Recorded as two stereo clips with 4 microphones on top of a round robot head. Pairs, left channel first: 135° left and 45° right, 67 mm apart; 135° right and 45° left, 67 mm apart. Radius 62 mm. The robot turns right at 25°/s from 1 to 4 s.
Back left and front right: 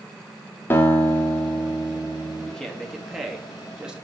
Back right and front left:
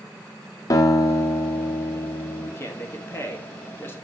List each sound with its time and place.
0.7 s a guitar: 170° right, 1.1 m; by 2.5 s 130° right, 1.1 m
2.5 s a man speaking: 150° right, 1.3 m; by 4.0 s 110° right, 1.3 m